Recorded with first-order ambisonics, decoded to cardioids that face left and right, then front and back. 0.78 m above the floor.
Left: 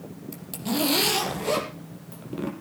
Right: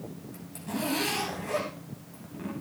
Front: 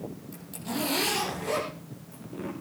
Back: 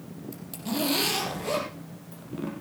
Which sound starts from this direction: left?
A zipper, at 0.3 s.